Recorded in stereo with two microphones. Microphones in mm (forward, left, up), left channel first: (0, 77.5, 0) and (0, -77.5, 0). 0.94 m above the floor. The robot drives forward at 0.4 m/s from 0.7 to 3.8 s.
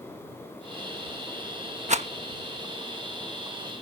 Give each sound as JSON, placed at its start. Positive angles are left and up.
{"t": 1.9, "sound": "a rattle", "side_deg": -50}